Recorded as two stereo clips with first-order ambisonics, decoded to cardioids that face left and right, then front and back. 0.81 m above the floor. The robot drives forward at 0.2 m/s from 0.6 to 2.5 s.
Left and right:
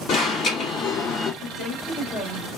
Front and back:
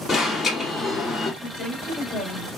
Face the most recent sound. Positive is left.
turn(degrees=100)